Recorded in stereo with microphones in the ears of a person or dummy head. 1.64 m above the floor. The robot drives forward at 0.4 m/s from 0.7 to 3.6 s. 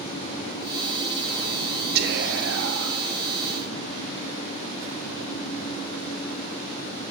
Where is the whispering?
55° right (ahead or behind), 0.7 m; by 3.0 s 80° right, 0.6 m.